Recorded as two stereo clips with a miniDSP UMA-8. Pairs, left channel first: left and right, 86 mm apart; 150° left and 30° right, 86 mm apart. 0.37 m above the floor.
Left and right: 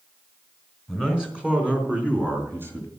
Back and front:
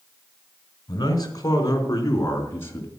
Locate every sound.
0.9 s a man speaking: 170° right, 3.5 m; by 2.9 s 145° right, 3.5 m